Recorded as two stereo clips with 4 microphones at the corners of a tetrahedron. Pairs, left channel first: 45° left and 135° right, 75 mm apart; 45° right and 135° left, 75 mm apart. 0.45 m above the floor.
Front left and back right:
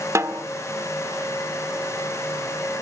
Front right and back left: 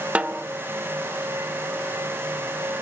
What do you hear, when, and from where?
0.1 s a snare drum: 160° right, 0.9 m